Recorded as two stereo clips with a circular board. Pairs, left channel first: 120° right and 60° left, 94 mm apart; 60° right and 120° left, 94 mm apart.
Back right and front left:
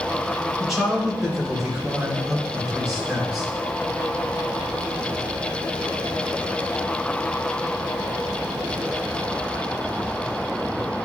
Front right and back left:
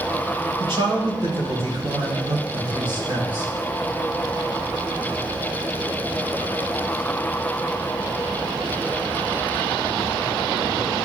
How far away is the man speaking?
About 3 m.